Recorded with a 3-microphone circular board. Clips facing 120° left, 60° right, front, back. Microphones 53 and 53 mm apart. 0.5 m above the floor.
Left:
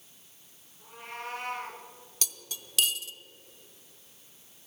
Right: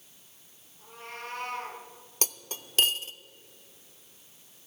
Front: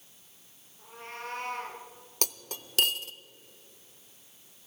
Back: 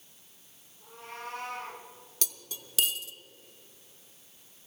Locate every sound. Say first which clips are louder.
0.8 s a cat meowing: left 1 dB, front 1 dB; 40° left, 4 m
2.2 s cutlery clinking: right 4 dB, front 6 dB; 20° right, 0.5 m